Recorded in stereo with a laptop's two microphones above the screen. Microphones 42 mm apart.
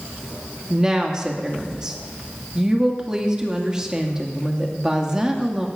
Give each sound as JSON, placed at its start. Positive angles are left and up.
{"t": 0.7, "sound": "a woman speaking", "side_deg": -20, "distance_m": 1.8}